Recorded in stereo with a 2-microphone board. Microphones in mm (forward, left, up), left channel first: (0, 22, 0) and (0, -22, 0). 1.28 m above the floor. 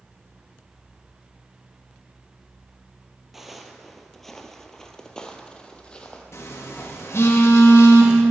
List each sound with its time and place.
3.3 s footsteps: 5° right (ahead or behind), 1.3 m; by 6.2 s 25° left (ahead or behind), 1.8 m
6.3 s a phone buzzing: 80° left, 1.8 m